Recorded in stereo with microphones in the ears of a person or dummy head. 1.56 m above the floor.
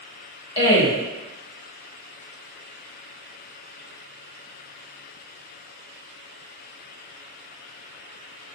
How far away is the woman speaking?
About 1.5 m.